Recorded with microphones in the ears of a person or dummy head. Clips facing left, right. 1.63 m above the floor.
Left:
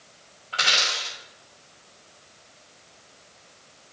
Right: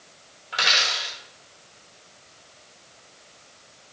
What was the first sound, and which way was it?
A dropped coin, 20° right (ahead or behind).